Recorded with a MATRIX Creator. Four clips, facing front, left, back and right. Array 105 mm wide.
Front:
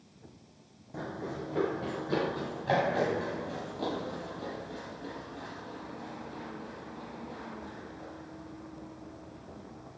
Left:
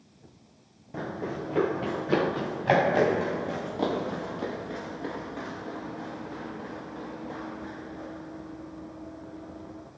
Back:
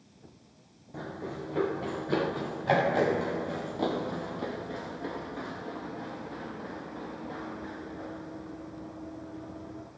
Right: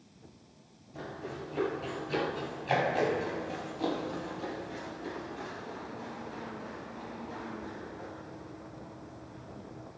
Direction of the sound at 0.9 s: 85° left.